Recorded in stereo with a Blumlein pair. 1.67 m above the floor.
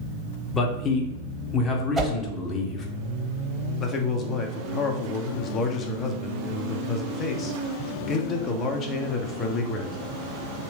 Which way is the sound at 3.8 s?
25° left.